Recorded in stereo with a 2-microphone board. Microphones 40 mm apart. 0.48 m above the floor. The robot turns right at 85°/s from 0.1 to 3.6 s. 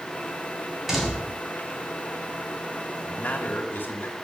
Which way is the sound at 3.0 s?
50° left.